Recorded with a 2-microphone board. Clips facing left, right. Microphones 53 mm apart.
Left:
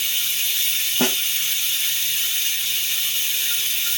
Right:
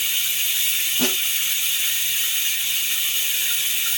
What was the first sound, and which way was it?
Running water, 15° right (ahead or behind).